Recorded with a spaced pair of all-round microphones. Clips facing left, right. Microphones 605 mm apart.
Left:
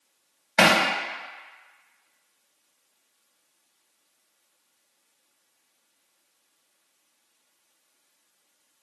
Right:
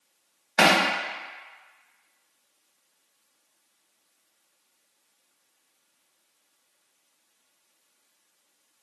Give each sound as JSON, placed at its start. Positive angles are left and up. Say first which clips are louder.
{"t": 0.6, "sound": "hammering", "louder": "left 1 dB", "side_deg": 30, "distance_m": 0.6}